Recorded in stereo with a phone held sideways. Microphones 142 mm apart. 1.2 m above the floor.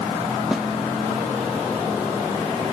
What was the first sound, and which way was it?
A snare drum, 5° right (ahead or behind).